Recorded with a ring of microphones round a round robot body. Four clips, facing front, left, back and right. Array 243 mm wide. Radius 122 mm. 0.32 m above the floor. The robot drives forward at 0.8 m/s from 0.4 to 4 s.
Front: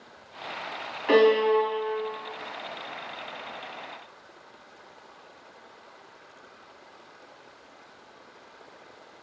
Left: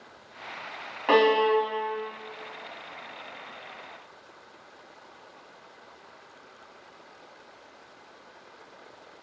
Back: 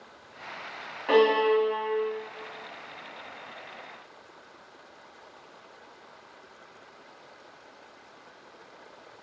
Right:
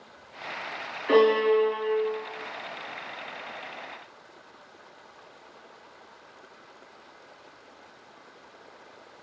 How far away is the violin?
About 3 m.